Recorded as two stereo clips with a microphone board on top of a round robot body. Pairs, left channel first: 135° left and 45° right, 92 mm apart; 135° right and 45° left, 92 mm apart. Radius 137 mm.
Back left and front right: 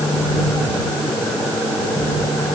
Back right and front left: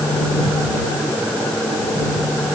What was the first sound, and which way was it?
Only background noise.